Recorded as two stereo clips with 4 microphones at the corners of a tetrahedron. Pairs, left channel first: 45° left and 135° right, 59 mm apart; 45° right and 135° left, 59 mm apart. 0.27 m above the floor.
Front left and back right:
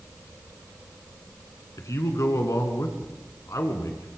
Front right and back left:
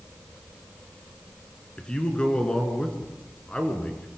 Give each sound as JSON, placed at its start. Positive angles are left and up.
{"t": 1.8, "sound": "a man speaking", "azimuth_deg": 25, "distance_m": 3.5}